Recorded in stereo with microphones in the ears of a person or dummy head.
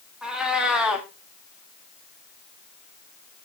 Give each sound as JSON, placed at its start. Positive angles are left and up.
{"t": 0.2, "sound": "a cat meowing", "side_deg": -5, "distance_m": 1.3}